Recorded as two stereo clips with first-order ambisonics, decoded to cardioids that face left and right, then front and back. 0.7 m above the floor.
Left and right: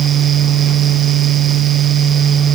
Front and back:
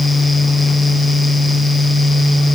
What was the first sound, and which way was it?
Only background noise.